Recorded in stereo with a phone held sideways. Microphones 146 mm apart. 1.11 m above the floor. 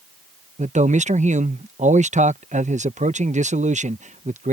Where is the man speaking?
55° right (ahead or behind).